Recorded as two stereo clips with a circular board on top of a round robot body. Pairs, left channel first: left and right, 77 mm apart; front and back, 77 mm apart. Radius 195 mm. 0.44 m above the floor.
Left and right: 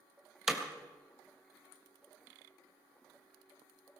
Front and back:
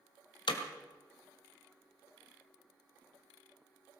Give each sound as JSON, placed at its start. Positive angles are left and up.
{"t": 0.5, "sound": "hammering", "azimuth_deg": -5, "distance_m": 1.6}